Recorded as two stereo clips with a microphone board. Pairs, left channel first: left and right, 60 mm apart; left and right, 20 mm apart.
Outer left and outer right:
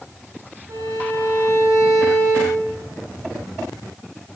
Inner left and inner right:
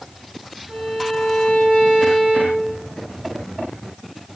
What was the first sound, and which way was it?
A violin, 75° right (ahead or behind).